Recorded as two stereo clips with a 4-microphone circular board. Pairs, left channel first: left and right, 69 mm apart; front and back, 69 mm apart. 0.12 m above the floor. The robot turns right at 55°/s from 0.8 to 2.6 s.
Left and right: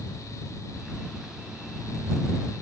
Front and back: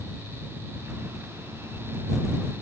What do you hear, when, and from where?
Only background noise.